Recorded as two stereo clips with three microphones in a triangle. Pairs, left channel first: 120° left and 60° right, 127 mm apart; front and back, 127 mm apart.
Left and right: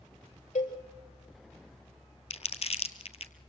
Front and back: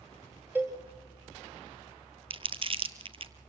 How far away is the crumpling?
About 1.1 m.